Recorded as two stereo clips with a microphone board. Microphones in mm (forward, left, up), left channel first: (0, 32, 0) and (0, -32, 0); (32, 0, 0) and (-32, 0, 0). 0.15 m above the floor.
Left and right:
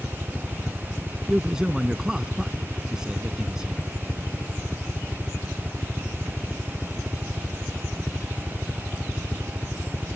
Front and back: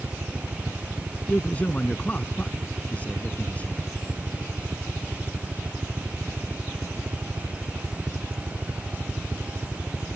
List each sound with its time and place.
0.0 s a helicopter: 150° left
1.3 s a man speaking: 25° right